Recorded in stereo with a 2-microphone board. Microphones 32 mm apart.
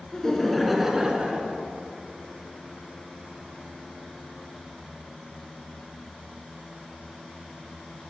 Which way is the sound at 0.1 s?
20° left (ahead or behind).